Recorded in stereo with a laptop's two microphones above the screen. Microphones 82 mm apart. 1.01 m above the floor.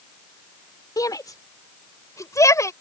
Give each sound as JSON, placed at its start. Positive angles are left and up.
{"t": 1.0, "sound": "a shout", "side_deg": 50}